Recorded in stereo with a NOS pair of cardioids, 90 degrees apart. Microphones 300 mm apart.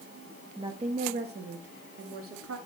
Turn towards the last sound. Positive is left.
turn(degrees=-50)